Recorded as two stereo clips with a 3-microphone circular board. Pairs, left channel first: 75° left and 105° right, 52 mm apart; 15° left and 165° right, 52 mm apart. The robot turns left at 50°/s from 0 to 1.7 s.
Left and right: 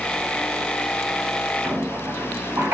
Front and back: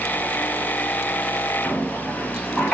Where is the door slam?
No door slam in this recording.